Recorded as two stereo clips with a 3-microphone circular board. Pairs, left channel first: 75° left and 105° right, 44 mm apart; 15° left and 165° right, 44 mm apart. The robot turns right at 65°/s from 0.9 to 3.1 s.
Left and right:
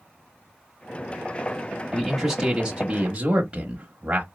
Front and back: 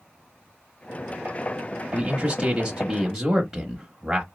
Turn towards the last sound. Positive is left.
turn(degrees=-105)